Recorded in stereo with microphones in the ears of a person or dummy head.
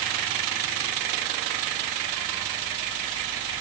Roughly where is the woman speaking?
I don't hear a woman speaking.